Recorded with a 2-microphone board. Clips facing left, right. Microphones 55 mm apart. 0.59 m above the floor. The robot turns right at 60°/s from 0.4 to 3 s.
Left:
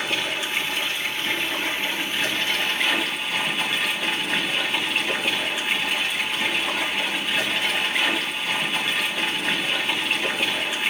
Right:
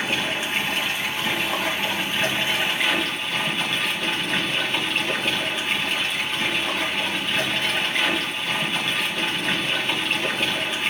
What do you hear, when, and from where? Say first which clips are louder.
0.0 s running water: right 1 dB; 150° right, 1.7 m; by 10.9 s 5° left, 1.7 m